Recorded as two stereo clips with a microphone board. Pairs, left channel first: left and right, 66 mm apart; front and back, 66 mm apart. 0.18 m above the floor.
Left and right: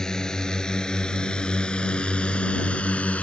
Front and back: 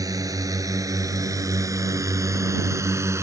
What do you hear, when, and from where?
0.0 s a drone: 170° left; by 3.2 s 155° left